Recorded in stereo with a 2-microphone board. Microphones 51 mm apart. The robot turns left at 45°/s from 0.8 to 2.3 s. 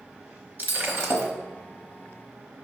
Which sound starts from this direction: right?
Breaking glass, at 0.6 s.